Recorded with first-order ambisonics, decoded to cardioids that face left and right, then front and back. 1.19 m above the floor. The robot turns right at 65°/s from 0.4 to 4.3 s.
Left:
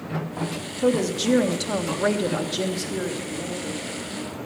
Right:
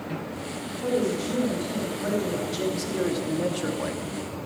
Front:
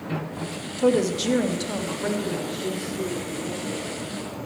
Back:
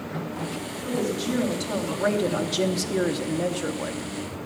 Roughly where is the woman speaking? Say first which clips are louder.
Left 4 dB, front 8 dB; ahead left.